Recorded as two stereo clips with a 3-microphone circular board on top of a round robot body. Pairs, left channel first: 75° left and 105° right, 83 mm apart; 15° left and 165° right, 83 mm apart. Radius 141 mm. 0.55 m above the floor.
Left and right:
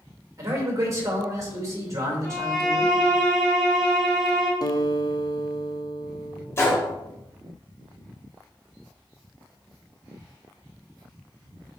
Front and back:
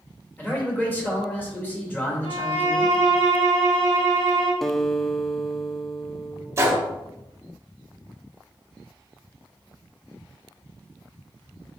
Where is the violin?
10° right, 3.5 m.